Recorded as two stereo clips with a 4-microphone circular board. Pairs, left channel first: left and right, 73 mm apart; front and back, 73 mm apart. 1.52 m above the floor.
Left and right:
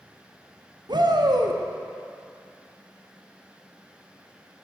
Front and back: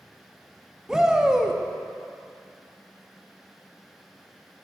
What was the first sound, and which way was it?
A shout, 95° right.